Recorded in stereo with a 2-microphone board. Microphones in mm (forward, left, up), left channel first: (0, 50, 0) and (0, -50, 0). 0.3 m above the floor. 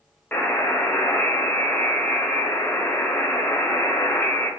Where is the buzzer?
20° left (ahead or behind), 1.3 m.